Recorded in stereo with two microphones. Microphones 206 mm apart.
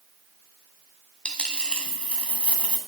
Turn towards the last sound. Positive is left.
turn(degrees=5)  # may be behind; listen again after turning